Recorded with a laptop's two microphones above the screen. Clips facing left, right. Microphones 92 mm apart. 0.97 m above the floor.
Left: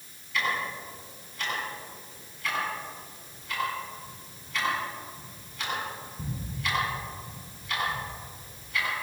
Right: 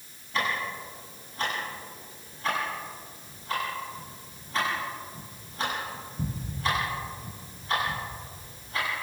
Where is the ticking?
35° right (ahead or behind), 8 m.